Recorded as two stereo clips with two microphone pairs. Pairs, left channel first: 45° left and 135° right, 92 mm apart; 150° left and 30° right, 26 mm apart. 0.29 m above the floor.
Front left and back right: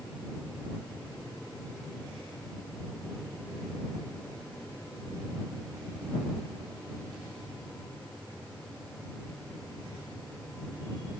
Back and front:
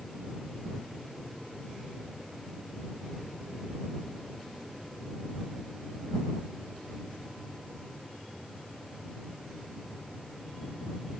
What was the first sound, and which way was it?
Only background noise.